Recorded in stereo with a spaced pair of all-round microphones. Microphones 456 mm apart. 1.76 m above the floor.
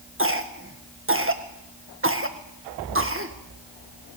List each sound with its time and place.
0.2 s a cough: 25° right (ahead or behind), 1.9 m